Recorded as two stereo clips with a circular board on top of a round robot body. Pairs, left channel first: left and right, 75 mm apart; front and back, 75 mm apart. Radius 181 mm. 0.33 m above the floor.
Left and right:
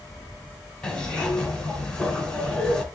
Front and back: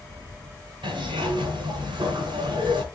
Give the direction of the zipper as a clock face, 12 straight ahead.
6 o'clock.